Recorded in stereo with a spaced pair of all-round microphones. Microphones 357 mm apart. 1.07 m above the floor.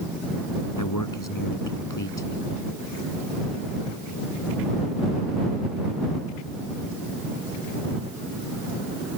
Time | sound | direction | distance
0.8 | a man speaking | 60° left (ahead or behind) | ?